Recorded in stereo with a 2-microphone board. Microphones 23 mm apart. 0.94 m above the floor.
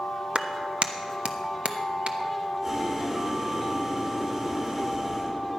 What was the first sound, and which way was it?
A clap, 45° right (ahead or behind).